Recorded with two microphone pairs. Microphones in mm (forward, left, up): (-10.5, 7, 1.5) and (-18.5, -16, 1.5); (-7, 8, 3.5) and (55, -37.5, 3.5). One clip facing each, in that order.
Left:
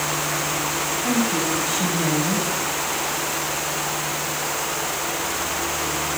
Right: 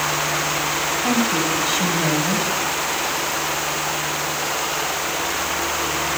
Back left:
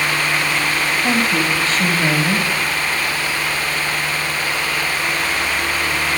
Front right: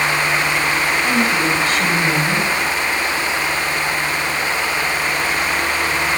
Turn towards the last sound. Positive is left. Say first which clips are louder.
# right 2 dB, back left 1 dB
turn(degrees=-165)